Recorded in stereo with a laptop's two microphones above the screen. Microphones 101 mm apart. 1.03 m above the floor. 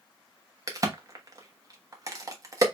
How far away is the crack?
About 0.9 m.